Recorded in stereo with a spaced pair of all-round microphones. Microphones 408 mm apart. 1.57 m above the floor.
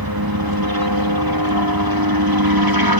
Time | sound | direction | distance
0.0 | a helicopter | 60° right (ahead or behind) | ?